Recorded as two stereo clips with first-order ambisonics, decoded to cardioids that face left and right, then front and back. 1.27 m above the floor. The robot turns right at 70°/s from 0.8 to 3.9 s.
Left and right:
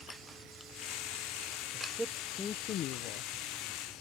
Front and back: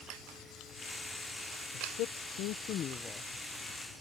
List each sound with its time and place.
1.7 s a man speaking: 25° right; by 3.3 s 80° left